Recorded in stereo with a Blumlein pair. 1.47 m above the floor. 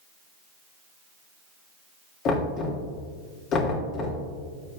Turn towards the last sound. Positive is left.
turn(degrees=35)